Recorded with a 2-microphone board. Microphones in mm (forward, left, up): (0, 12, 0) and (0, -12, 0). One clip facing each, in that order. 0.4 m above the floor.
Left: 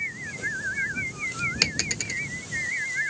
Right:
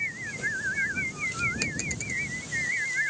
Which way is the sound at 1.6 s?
85° left.